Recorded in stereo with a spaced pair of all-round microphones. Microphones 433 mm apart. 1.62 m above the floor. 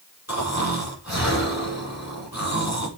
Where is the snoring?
35° left (ahead or behind), 5 m.